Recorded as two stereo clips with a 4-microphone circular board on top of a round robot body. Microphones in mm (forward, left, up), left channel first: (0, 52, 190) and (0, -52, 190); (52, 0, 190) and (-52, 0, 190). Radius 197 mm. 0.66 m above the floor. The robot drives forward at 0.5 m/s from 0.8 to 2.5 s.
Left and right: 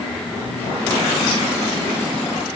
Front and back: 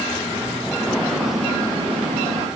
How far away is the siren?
No siren in this recording.